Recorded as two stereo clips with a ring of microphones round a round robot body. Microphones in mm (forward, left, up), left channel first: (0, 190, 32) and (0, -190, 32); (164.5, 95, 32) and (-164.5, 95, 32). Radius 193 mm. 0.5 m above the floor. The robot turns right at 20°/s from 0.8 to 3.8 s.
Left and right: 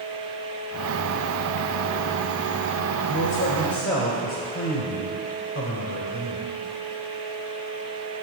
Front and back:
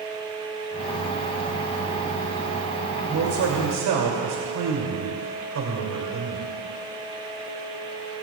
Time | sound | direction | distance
3.1 | a man speaking | 130° left | 2.0 m